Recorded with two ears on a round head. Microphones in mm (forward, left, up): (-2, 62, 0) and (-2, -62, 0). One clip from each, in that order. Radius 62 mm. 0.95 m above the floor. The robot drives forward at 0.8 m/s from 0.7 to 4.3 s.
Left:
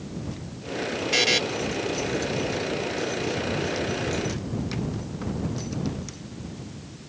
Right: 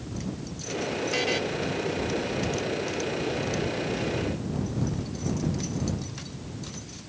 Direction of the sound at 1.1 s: 70° left (ahead or behind).